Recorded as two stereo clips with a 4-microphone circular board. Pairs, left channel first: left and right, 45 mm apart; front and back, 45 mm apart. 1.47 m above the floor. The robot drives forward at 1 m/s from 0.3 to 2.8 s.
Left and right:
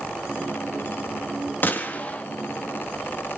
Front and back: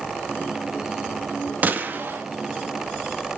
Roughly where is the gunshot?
Behind left.